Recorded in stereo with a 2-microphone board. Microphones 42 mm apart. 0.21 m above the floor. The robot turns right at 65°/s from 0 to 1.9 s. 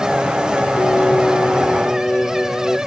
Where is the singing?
85° left, 0.9 m; by 2.8 s 160° left, 0.9 m.